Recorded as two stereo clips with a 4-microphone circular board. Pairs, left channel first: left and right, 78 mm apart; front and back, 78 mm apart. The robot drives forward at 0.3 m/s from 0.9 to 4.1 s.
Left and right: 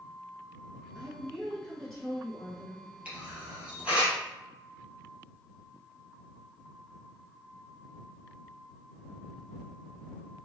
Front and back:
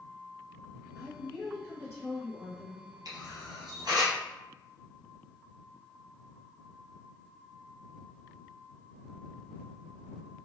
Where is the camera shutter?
160° right, 1.3 m; by 4.2 s 165° right, 1.5 m.